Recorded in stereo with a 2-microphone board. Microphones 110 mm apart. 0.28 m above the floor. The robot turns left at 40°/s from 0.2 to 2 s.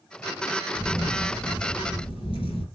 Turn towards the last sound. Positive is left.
turn(degrees=115)